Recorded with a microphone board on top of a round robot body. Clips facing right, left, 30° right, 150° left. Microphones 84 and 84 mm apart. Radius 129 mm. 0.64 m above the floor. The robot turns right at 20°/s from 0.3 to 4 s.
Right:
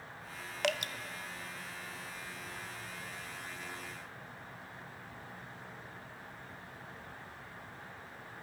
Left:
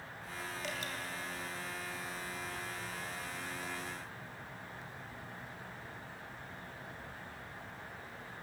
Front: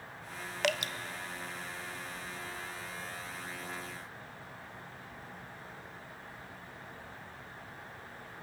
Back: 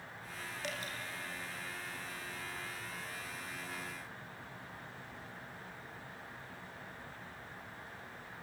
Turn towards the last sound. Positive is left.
turn(degrees=10)